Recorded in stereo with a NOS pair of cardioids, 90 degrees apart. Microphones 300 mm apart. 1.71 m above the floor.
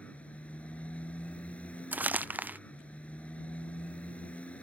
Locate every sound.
0.0 s a motorcycle: 5° left
1.9 s crumpling: 5° right